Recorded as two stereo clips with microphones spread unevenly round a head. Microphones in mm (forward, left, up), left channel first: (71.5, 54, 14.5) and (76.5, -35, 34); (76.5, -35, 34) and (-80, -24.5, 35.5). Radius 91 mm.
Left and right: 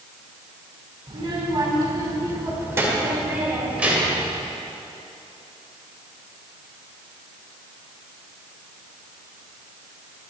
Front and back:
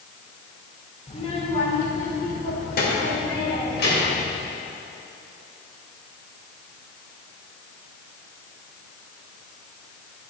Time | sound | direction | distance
1.1 | a child speaking | 60° right | 2.5 m